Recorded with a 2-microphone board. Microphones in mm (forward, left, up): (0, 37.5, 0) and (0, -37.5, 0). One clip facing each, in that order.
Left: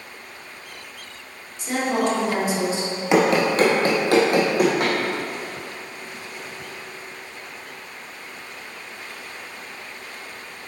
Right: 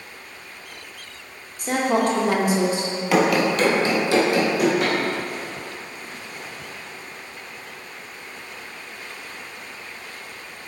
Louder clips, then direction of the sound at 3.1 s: Left 1 dB; 20° left (ahead or behind).